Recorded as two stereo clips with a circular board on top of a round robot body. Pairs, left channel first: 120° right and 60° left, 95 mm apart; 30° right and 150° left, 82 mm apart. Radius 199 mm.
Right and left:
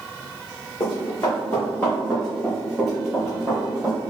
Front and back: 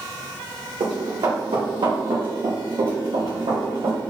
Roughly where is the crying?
No crying in this recording.